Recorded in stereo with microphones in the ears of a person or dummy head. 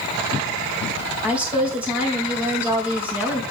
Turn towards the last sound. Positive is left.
turn(degrees=-10)  # may be behind; listen again after turning